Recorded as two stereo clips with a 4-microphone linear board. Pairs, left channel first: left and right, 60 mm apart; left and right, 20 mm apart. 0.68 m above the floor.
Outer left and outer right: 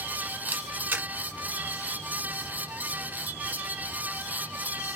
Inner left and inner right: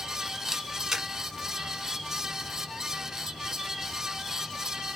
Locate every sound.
0.5 s a camera shutter: 30° right (ahead or behind), 1.3 m